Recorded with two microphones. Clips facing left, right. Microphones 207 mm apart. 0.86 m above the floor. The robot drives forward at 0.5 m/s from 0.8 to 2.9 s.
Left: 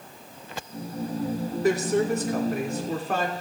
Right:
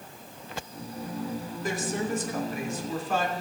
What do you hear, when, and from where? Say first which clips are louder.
1.6 s a woman speaking: left 8 dB; 70° left (ahead or behind), 2.5 m; by 3.3 s 60° left (ahead or behind), 2.5 m